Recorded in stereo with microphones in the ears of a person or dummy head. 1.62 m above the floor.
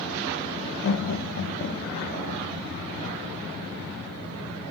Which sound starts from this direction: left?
Laughter, at 0.8 s.